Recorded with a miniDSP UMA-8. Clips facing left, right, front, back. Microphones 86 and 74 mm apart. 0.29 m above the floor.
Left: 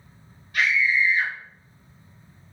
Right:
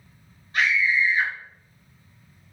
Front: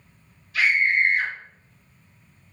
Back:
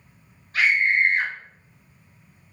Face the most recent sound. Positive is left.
turn(degrees=-140)